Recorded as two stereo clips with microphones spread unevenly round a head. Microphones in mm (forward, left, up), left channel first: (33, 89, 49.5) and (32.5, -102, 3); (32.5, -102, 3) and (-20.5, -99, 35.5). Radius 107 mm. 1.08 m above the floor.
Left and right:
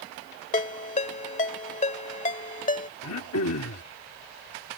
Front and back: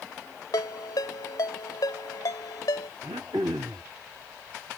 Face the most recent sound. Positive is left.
turn(degrees=115)